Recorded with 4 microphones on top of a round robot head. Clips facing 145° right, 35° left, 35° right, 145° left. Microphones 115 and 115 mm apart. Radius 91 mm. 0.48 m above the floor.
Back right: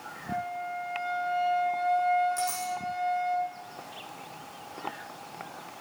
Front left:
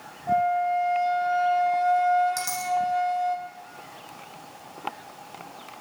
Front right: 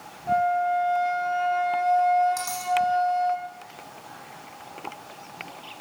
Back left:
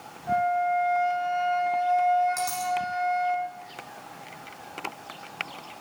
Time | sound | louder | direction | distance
0.3 | a flute | front left 12 dB, front right 2 dB | 35° left | 3.5 m
2.4 | a dropped coin | front left 1 dB, back left 2 dB | 55° left | 8.5 m